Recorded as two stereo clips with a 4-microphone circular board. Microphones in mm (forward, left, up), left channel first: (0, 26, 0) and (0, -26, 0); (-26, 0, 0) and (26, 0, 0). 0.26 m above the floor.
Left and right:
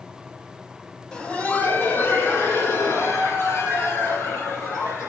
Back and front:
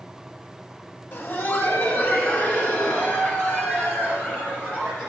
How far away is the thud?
I don't hear a thud.